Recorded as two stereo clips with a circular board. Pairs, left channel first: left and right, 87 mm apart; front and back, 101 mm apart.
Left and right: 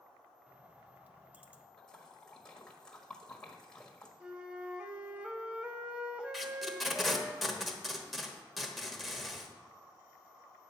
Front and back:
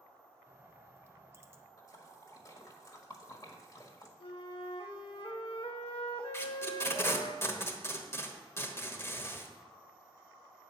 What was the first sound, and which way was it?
A bird, 145° right.